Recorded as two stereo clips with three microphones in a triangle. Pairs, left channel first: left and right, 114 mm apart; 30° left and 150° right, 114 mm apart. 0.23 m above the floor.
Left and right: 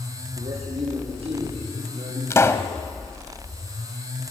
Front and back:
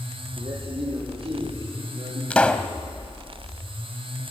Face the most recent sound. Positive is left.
turn(degrees=95)